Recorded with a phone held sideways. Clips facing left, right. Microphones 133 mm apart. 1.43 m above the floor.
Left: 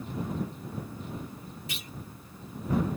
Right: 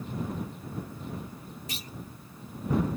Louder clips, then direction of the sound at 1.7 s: Right 1 dB; 40° right (ahead or behind).